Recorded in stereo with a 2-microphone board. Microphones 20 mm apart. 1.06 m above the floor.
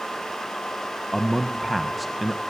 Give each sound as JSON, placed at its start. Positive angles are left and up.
{"t": 1.1, "sound": "a man speaking", "side_deg": 5, "distance_m": 0.8}